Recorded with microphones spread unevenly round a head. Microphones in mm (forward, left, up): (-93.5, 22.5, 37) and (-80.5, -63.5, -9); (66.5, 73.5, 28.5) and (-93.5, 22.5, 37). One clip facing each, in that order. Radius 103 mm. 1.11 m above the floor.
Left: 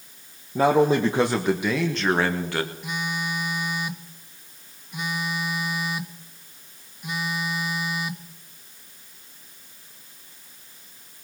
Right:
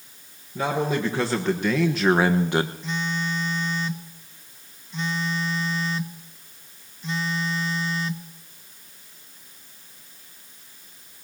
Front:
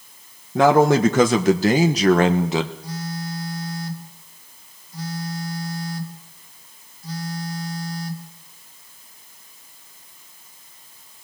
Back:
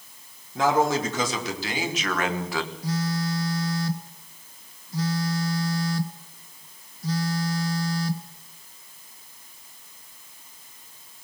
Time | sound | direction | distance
0.6 | a man speaking | 25° left | 1.4 m
2.8 | a phone buzzing | straight behind | 1.4 m